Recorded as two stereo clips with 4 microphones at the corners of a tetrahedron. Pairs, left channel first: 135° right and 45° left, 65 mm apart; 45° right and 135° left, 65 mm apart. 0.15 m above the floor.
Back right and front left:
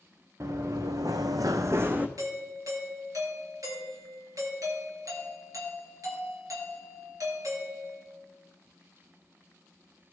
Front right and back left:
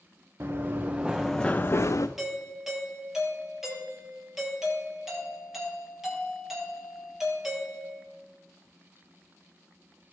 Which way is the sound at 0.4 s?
85° left.